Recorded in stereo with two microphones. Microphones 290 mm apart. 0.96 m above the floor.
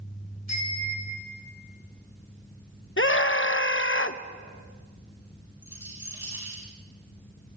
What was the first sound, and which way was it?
A bicycle bell, 70° left (ahead or behind).